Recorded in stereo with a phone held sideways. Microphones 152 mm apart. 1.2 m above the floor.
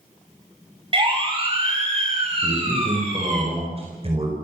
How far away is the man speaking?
About 4.5 m.